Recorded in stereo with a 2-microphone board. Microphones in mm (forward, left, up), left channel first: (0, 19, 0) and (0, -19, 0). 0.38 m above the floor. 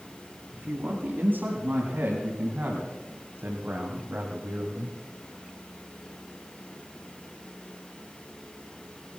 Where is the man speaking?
55° right (ahead or behind), 4.5 m; by 5.0 s 60° right (ahead or behind), 2.5 m.